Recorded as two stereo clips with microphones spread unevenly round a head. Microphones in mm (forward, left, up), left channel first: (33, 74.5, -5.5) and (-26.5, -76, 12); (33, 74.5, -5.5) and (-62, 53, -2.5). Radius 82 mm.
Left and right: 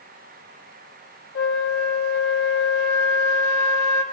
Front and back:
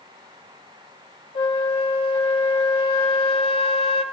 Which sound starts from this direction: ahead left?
A flute, at 1.4 s.